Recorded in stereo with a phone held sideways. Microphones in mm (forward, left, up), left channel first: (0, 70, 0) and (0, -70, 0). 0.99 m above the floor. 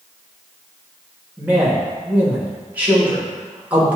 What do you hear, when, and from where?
1.4 s a man speaking: 10° right (ahead or behind), 1.4 m